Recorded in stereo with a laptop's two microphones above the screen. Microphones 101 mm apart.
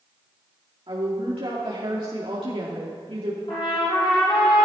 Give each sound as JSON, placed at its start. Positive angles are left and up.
{"t": 0.9, "sound": "a woman speaking", "side_deg": -60, "distance_m": 2.5}
{"t": 3.5, "sound": "a trumpet", "side_deg": 50, "distance_m": 5.0}